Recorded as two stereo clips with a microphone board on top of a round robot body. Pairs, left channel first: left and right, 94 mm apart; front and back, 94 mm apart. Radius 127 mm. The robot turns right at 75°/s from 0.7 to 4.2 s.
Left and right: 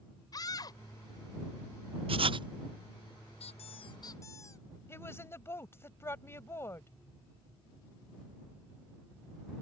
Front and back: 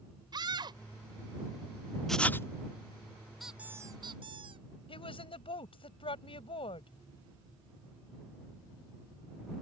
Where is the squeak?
90° left; by 4.7 s 150° left.